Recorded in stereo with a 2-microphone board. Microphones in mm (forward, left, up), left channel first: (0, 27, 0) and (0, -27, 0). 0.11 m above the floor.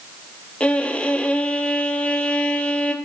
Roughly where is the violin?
Left.